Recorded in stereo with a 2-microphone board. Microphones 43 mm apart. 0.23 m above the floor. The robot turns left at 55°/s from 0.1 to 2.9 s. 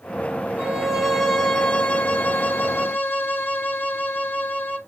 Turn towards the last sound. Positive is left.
turn(degrees=85)